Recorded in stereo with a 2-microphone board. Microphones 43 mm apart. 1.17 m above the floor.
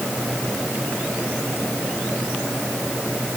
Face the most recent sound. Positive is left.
No sound to turn to.